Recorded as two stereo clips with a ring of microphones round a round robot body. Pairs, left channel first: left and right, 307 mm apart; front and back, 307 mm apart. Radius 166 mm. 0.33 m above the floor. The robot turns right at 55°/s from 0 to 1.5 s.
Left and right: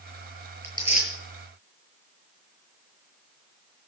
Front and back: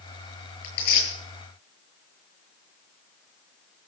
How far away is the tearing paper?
About 8 m.